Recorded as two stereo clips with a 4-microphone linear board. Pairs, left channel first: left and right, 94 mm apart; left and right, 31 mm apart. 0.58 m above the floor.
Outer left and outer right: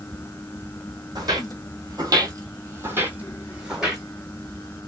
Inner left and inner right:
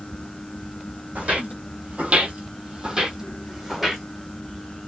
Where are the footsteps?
45° right (ahead or behind), 1.0 m; by 4.0 s 5° right (ahead or behind), 1.2 m.